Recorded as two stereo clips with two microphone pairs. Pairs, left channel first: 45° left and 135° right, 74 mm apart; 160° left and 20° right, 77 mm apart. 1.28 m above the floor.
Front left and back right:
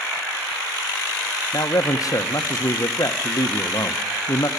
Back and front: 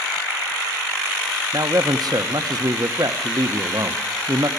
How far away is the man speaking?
About 1.0 m.